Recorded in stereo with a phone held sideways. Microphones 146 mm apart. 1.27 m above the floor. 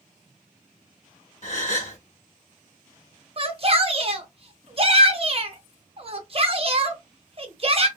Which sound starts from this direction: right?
A shout, at 3.4 s.